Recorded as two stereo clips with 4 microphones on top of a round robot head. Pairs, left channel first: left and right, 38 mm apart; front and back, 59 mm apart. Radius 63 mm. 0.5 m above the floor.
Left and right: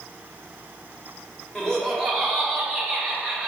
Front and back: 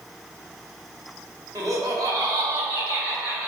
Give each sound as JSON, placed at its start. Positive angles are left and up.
{"t": 1.6, "sound": "laughter", "azimuth_deg": 170, "distance_m": 2.0}